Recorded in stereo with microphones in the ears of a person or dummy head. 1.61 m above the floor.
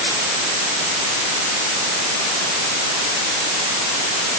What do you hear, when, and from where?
Only background noise.